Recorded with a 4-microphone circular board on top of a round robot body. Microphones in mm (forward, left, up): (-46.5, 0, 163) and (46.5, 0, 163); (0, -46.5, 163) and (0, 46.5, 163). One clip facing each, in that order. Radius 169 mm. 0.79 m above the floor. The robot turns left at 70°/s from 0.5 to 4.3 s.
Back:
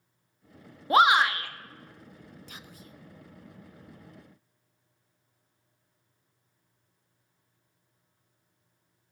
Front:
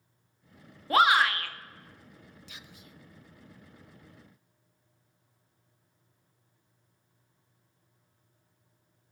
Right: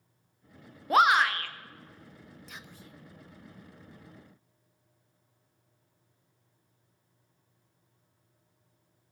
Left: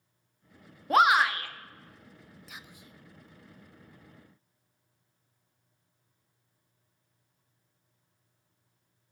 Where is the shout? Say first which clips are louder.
Back 2 dB, even; 170° right, 0.8 m; by 1.5 s 145° left, 0.8 m.